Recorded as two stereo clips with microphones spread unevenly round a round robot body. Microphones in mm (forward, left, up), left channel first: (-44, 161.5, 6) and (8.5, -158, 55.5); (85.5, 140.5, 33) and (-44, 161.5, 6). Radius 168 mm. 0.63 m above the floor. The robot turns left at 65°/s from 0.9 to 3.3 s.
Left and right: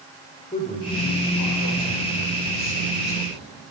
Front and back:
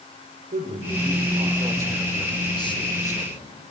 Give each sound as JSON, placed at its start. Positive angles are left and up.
{"t": 0.5, "sound": "a man speaking", "azimuth_deg": 165, "distance_m": 2.0}